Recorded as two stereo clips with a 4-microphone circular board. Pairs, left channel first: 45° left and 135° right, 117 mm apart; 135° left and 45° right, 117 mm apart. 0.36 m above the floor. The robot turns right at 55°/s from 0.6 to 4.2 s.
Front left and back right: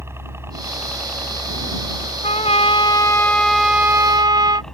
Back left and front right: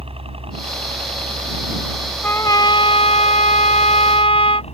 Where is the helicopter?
70° right; by 4.7 s 130° left.